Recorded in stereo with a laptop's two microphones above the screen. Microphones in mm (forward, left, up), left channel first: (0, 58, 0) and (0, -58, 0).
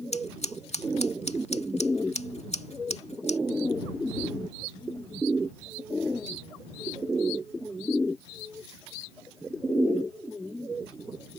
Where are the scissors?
65° left (ahead or behind).